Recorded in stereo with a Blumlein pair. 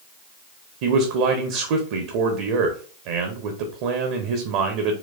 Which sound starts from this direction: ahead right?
A man speaking, at 0.8 s.